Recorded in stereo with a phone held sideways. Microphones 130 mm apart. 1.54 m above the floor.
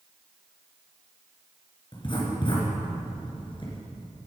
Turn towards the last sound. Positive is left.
turn(degrees=40)  # may be behind; listen again after turning